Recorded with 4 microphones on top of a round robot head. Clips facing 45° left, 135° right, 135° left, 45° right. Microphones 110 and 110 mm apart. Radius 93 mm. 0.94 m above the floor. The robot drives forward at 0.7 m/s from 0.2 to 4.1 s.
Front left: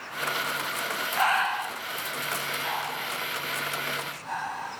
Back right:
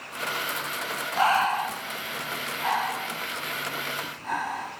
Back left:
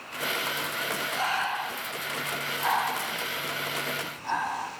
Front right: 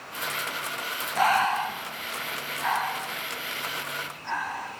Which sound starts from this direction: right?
Breathing, at 1.2 s.